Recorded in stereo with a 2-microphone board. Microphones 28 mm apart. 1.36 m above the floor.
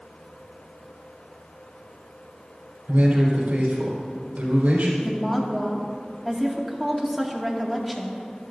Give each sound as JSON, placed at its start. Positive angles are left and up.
{"t": 2.9, "sound": "a man speaking", "side_deg": -80, "distance_m": 4.5}
{"t": 5.0, "sound": "a woman speaking", "side_deg": 0, "distance_m": 2.0}